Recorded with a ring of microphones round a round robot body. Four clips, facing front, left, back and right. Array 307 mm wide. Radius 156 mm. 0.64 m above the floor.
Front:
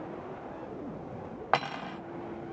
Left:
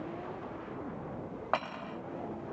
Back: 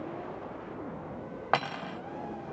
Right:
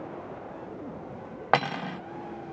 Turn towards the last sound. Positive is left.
turn(degrees=-95)